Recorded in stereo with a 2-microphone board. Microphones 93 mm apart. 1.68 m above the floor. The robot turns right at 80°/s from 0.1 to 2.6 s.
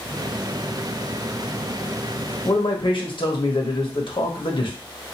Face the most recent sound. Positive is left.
turn(degrees=65)  # may be behind; listen again after turning